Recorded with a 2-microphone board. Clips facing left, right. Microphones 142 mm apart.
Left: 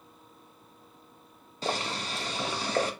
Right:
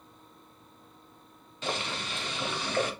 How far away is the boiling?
About 1.0 m.